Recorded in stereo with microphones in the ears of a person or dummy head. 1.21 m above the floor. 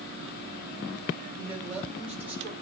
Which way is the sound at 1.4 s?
5° right (ahead or behind).